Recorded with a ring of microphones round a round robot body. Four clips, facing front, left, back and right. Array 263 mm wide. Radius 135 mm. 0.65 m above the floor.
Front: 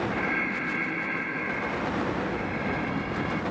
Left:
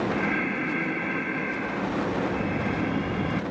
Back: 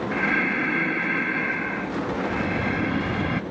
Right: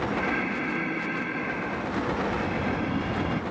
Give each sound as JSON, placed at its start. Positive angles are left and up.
{"t": 0.1, "sound": "breathing", "azimuth_deg": 175, "distance_m": 1.2}